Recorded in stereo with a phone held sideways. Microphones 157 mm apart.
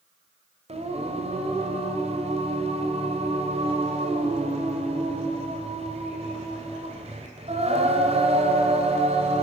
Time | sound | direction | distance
0.7 | singing | 40° right (ahead or behind) | 2.5 m